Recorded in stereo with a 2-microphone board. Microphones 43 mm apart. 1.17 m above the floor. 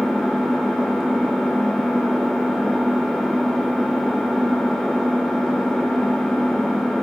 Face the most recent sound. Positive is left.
turn(degrees=5)  # may be behind; listen again after turning